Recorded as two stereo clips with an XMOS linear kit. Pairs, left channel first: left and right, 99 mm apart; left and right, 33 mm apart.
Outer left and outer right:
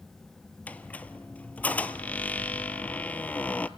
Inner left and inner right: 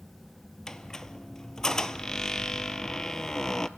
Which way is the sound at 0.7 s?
15° left (ahead or behind).